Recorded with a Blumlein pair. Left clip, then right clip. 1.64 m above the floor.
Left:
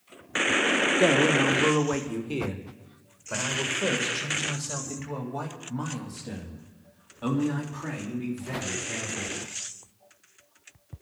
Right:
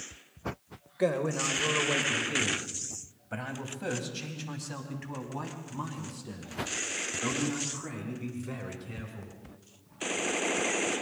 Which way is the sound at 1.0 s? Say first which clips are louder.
Left 4 dB; 50° left.